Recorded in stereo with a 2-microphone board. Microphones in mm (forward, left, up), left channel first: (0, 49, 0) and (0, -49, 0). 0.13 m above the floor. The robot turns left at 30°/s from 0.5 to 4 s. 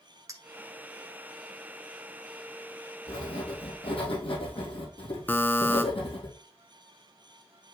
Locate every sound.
0.3 s a clink: 30° right (ahead or behind), 1.0 m
3.1 s writing: 75° left (ahead or behind), 3.5 m; by 6.3 s 60° left (ahead or behind), 3.5 m
5.3 s a buzzer: 20° left (ahead or behind), 0.7 m